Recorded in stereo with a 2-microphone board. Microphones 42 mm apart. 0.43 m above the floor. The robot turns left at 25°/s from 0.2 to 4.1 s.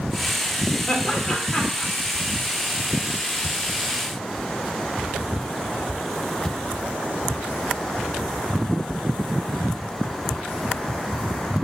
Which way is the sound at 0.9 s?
25° left (ahead or behind).